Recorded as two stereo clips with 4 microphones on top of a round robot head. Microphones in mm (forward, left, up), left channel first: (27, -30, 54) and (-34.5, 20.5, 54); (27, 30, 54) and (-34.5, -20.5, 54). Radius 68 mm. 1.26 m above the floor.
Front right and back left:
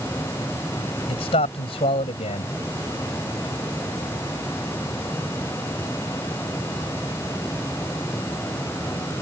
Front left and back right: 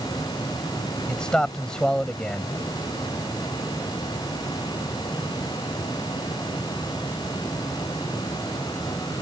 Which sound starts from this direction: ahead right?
A man speaking, at 1.1 s.